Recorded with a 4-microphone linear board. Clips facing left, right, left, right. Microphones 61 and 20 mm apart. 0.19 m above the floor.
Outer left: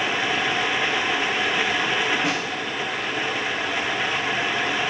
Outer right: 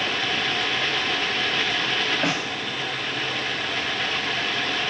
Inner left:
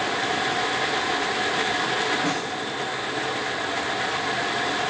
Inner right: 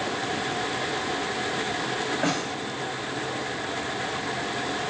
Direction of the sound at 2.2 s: 55° right (ahead or behind).